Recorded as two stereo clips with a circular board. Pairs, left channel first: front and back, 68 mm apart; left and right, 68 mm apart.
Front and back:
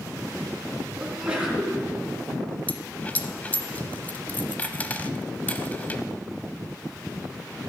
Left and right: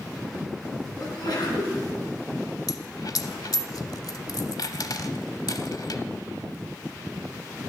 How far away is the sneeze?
About 4 m.